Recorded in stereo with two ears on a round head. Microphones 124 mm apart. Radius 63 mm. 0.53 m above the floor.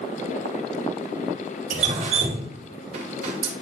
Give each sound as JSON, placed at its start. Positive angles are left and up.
{"t": 1.7, "sound": "dripping", "side_deg": -60, "distance_m": 2.5}